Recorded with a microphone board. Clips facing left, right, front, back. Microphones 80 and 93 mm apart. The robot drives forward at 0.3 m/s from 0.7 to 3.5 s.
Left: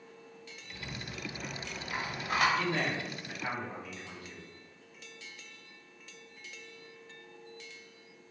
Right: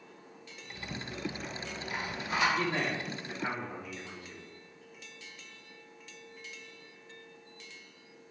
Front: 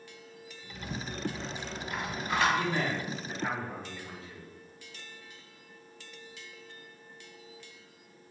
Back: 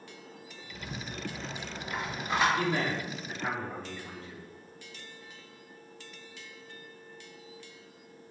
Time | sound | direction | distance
0.7 | a rattle | 95° left | 1.8 m
2.6 | a man speaking | 145° right | 1.2 m